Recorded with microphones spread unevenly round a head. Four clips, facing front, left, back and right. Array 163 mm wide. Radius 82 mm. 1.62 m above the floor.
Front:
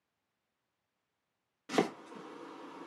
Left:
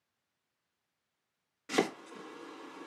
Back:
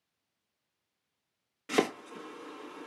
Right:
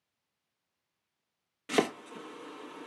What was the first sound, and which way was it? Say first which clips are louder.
Chopping: right 2 dB, back 3 dB; 115° right.